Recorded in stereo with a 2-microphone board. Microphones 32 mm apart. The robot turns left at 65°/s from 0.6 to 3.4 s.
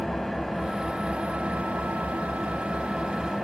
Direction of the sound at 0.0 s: 5° left.